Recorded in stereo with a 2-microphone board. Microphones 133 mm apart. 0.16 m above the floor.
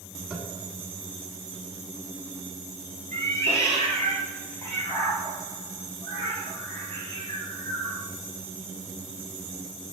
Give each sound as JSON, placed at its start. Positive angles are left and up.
{"t": 0.3, "sound": "tapping", "side_deg": -5, "distance_m": 1.1}
{"t": 3.1, "sound": "a cat meowing", "side_deg": 20, "distance_m": 1.4}